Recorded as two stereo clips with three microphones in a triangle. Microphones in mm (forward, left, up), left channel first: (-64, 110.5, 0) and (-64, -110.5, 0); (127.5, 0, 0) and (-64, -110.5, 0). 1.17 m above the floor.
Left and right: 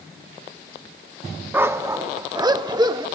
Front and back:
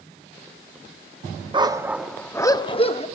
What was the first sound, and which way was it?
A dog barking, 155° right.